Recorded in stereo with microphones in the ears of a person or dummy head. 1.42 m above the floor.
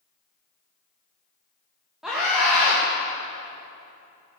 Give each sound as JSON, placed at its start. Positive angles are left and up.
{"t": 2.0, "sound": "a scream", "side_deg": 0, "distance_m": 2.0}